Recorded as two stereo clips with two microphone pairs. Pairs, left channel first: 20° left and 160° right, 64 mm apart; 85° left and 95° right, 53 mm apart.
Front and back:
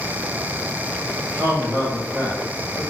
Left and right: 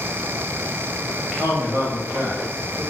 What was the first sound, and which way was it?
A man speaking, 125° right.